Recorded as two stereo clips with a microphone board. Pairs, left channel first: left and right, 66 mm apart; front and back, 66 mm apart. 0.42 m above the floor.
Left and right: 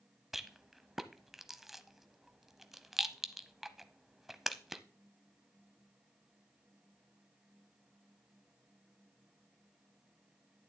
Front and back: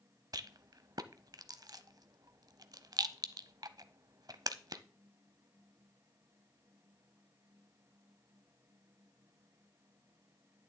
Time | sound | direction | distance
0.3 | a rattle | 175° right | 0.6 m